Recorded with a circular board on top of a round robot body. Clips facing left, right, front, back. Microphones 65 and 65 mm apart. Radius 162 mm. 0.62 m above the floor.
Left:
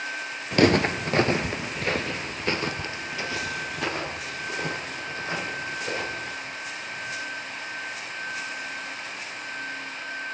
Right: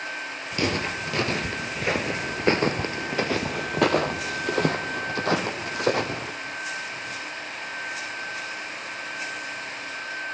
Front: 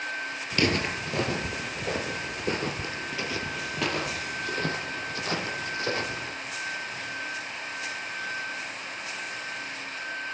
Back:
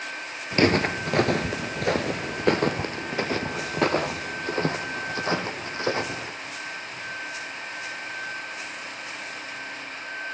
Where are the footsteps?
120° left, 0.9 m; by 6.3 s 115° right, 2.5 m.